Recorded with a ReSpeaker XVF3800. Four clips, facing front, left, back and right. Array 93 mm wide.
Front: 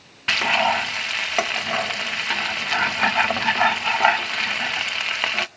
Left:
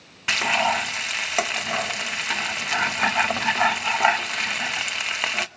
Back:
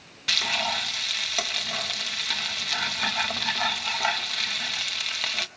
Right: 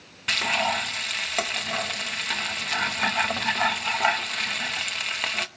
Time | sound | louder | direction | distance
0.3 | frying | left 3 dB, front 9 dB | 25° left | 0.7 m